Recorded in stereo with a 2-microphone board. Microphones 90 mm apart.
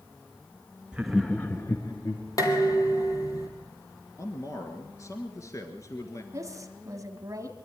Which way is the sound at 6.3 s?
35° right (ahead or behind).